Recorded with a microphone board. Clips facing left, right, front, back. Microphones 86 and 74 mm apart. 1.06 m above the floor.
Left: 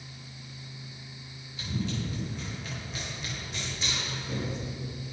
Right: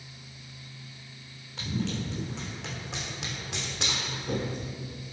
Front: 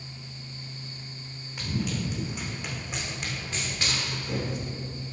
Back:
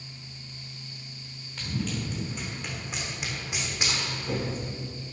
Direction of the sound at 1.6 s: 75° right.